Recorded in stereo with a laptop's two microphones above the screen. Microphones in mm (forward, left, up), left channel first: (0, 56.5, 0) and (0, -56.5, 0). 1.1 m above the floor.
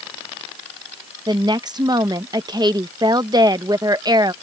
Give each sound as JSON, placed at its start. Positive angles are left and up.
{"t": 1.3, "sound": "a woman speaking", "side_deg": -35}